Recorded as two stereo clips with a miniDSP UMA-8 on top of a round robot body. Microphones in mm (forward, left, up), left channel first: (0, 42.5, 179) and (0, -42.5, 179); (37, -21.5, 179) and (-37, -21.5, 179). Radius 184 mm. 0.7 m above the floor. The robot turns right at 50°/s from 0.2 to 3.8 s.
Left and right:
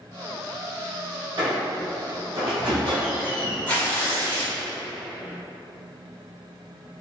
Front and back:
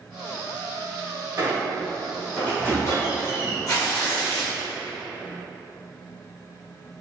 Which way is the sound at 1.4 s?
125° right.